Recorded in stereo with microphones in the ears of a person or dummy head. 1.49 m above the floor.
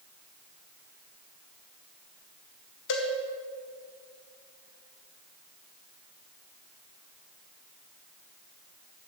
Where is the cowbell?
70° left (ahead or behind), 1.7 m.